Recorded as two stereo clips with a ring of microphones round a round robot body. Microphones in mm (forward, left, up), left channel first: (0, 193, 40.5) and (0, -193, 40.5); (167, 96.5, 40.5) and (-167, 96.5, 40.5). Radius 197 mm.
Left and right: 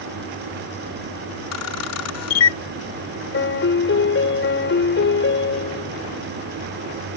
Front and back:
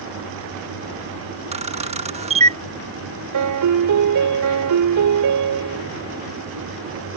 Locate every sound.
1.5 s a camera shutter: 115° left
3.3 s a piano: 150° left